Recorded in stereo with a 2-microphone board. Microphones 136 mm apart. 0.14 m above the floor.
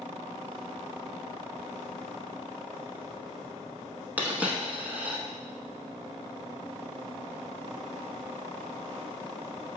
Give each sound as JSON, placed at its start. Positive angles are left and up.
{"t": 4.2, "sound": "a dropped coin", "side_deg": -15, "distance_m": 0.5}